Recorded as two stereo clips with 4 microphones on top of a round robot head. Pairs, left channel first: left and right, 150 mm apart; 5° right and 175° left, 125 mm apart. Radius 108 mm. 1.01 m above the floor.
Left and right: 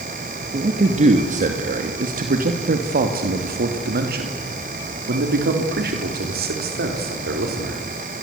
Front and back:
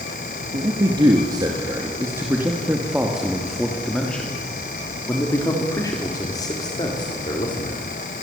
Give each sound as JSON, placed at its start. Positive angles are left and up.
{"t": 0.5, "sound": "a man speaking", "azimuth_deg": -130, "distance_m": 2.5}